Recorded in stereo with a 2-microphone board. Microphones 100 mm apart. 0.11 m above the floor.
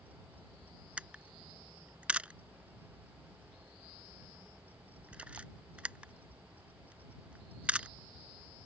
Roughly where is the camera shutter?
Centre.